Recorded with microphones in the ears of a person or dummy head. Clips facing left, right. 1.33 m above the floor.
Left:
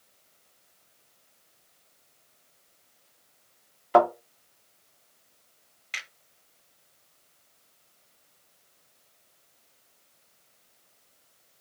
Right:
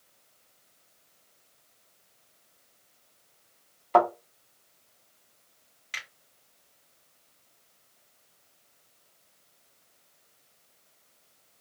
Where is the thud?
10° left (ahead or behind), 1.0 m.